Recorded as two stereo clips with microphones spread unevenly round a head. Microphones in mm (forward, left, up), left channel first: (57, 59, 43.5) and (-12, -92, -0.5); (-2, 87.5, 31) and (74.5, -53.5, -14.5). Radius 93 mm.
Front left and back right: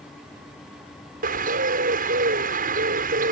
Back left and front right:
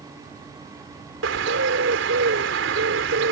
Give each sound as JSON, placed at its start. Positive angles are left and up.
{"t": 1.2, "sound": "a bird", "azimuth_deg": -75}